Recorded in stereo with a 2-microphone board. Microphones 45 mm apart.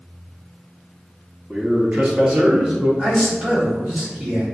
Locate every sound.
1.5 s a man speaking: 25° right (ahead or behind), 0.7 m
3.0 s a man speaking: 30° right (ahead or behind), 1.4 m